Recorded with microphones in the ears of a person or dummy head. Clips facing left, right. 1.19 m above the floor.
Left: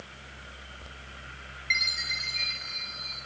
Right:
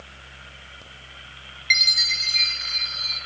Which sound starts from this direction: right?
A chime, at 1.7 s.